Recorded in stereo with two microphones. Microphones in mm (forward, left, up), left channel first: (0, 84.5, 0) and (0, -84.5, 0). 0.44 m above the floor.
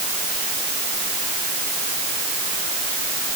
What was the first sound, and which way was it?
Only background noise.